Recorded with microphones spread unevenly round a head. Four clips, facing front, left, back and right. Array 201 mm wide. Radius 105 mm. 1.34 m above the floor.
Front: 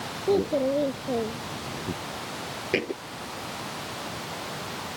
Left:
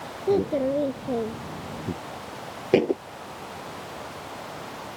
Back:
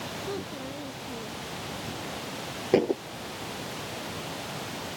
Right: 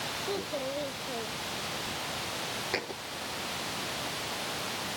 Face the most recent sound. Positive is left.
turn(degrees=110)